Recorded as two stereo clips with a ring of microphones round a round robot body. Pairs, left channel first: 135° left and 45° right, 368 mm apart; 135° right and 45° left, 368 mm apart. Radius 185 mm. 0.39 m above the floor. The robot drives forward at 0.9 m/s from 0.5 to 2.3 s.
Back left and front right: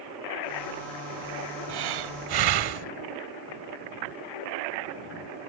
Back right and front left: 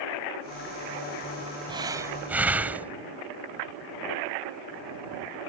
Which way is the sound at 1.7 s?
30° right.